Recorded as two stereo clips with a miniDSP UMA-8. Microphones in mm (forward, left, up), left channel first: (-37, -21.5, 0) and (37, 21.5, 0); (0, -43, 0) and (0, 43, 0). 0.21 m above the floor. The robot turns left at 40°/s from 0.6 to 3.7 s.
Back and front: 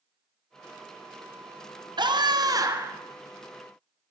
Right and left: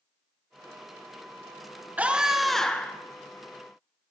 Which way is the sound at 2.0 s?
20° left.